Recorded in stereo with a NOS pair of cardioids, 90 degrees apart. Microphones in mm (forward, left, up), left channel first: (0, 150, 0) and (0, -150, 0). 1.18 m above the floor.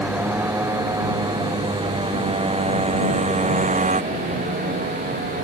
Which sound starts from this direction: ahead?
A motorcycle, at 0.0 s.